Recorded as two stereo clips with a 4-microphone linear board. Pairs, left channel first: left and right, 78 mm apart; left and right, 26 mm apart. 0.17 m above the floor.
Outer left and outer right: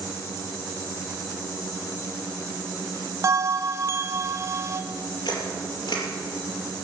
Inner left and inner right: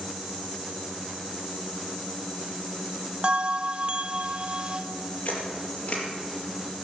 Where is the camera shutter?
70° left (ahead or behind), 4.5 m.